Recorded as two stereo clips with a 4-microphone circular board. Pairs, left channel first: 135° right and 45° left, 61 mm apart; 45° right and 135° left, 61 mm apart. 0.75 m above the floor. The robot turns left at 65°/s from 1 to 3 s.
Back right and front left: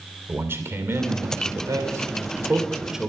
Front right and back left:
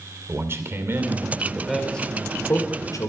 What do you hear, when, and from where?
0.3 s a man speaking: 90° left, 2.5 m; by 3.1 s 40° right, 2.5 m